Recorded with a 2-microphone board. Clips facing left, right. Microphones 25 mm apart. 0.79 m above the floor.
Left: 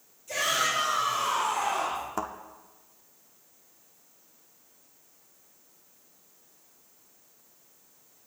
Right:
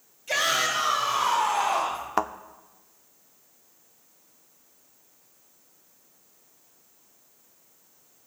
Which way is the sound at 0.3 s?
80° right.